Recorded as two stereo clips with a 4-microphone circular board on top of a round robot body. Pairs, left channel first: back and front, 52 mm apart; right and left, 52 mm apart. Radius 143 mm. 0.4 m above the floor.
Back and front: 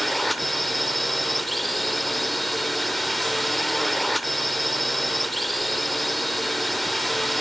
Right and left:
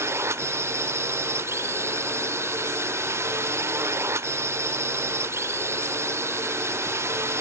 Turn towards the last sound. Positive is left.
turn(degrees=90)